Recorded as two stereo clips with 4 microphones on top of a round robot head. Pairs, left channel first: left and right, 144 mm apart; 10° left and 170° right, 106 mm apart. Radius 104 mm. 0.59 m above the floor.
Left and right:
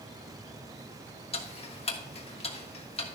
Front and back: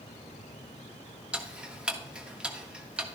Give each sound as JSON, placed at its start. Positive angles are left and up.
{"t": 1.3, "sound": "ticking", "azimuth_deg": 110, "distance_m": 1.6}